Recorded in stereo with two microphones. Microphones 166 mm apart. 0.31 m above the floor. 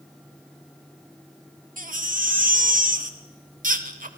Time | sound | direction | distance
1.8 | a baby crying | 55° right (ahead or behind) | 0.9 m